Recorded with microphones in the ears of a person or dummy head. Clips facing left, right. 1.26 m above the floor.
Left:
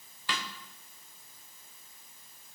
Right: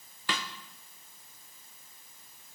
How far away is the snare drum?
About 1.0 m.